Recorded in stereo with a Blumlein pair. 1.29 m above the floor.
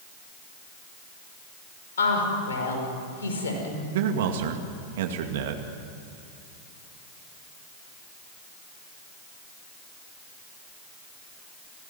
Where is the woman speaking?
65° left, 5.5 m.